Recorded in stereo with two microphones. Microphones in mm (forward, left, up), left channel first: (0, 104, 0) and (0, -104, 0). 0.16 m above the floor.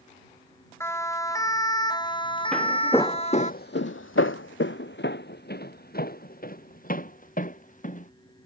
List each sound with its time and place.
0.8 s a siren: 10° left (ahead or behind); by 3.5 s 30° left (ahead or behind)
2.5 s footsteps: centre (ahead or behind); by 8.1 s 40° left (ahead or behind)